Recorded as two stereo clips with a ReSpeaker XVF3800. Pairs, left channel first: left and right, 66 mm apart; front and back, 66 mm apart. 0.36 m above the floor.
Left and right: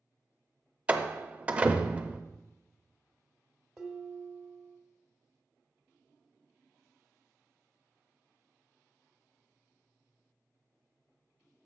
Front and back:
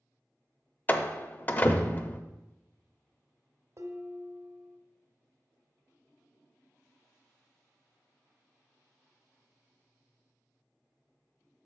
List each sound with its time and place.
0.9 s a door slam: 35° right, 0.6 m
3.8 s dishes clattering: 170° right, 1.2 m